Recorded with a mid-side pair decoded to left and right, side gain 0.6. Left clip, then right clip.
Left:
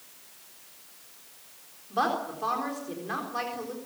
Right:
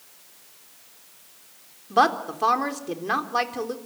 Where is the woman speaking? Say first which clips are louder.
Right 8 dB; 45° right, 3.5 m.